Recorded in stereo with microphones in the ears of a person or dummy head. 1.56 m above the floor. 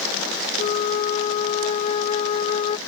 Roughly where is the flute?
Left.